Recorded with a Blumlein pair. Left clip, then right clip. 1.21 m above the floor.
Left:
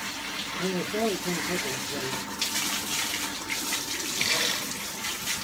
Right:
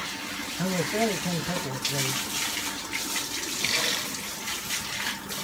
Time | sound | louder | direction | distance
0.6 | a man speaking | right 2 dB | 20° right | 1.3 m